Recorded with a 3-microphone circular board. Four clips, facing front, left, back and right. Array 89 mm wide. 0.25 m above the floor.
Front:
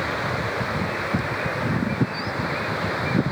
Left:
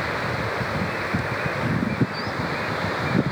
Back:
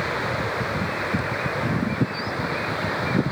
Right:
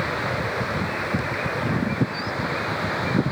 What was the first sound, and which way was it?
Only background noise.